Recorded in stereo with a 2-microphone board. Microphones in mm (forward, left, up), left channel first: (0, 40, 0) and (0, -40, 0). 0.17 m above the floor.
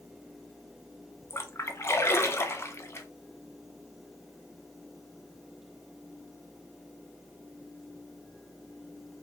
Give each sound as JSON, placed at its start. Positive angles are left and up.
{"t": 1.3, "sound": "a splash", "side_deg": 35, "distance_m": 0.6}